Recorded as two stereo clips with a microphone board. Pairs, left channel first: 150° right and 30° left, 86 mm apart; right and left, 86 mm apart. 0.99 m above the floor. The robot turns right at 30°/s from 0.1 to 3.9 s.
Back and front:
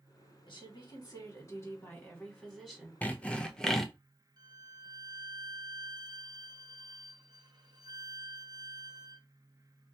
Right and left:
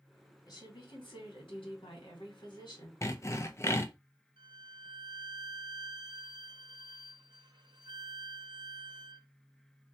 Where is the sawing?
90° right, 0.5 m; by 3.9 s 65° right, 0.5 m.